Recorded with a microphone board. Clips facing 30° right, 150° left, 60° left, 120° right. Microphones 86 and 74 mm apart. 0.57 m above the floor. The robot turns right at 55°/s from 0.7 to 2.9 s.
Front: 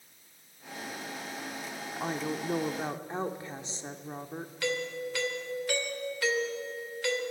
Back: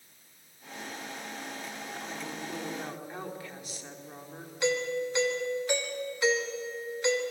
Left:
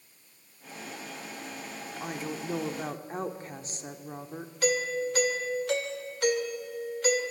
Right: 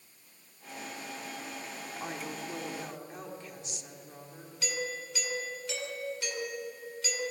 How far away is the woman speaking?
About 1.4 m.